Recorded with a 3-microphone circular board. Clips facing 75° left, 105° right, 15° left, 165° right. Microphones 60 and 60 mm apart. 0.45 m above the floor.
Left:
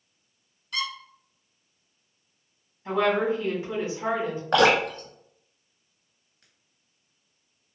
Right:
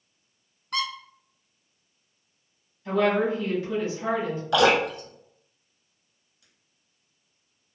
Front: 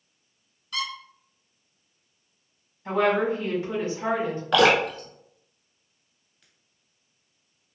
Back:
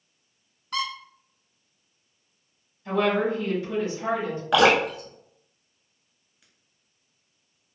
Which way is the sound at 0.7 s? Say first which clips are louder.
Right 2 dB, back 3 dB; 135° right.